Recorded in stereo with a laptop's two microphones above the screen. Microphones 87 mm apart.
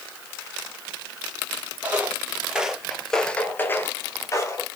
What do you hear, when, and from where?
1.8 s footsteps: 20° right (ahead or behind), 1.9 m; by 4.7 s 35° left (ahead or behind), 1.7 m